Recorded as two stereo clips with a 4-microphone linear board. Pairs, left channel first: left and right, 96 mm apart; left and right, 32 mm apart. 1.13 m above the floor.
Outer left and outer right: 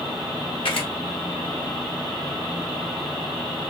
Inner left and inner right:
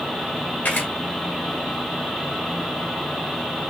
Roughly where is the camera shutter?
Left.